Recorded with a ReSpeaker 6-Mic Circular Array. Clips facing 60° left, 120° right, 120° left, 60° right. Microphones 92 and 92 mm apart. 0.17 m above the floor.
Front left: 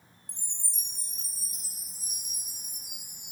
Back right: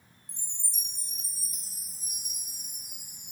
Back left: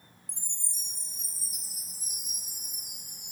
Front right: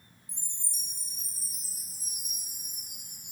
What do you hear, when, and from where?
0.3 s a chime: 130° left, 4 m